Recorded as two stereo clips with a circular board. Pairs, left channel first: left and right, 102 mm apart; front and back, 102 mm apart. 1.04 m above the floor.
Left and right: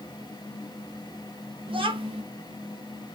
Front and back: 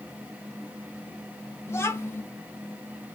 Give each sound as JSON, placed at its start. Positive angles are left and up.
{"t": 1.7, "sound": "a child speaking", "azimuth_deg": -65, "distance_m": 0.8}